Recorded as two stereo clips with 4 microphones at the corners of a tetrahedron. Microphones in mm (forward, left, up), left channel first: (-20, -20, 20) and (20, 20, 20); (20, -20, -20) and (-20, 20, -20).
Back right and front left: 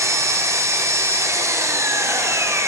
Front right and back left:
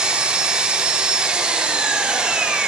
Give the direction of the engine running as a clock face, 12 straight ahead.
10 o'clock.